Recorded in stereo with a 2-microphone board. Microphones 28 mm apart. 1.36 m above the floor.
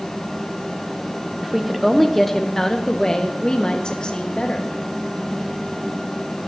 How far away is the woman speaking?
About 1.2 m.